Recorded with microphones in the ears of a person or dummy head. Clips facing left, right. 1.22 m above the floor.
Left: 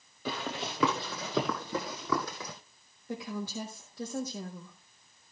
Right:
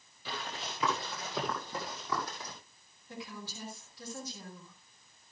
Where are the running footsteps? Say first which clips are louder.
Left 6 dB; 40° left (ahead or behind), 1.6 m; by 2.5 s 65° left (ahead or behind), 2.5 m.